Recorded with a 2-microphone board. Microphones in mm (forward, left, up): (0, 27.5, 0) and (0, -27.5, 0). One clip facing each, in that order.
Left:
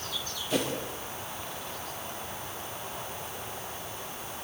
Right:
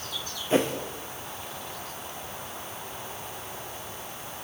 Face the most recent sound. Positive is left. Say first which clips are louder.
# right 6 dB
turn(degrees=-30)  # may be behind; listen again after turning